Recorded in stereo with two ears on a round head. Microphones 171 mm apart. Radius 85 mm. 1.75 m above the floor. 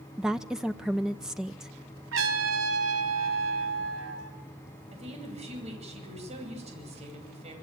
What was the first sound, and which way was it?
A woman speaking, 5° right (ahead or behind).